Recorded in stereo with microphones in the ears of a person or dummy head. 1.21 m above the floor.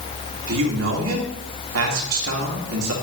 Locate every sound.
0.5 s a man speaking: 85° right, 2 m